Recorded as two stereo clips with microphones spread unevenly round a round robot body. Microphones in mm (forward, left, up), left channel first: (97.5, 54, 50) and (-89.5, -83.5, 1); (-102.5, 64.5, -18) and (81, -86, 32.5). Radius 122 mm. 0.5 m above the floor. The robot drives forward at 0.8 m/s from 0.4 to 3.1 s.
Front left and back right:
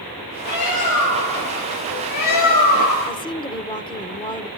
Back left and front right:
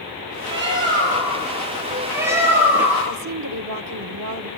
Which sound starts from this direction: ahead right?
A woman speaking, at 3.1 s.